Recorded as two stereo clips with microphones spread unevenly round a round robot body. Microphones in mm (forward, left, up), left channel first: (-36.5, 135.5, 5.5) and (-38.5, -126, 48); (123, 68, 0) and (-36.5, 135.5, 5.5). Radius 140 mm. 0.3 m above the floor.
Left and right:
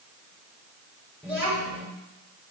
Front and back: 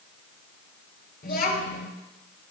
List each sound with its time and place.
1.2 s a child speaking: straight ahead, 4.5 m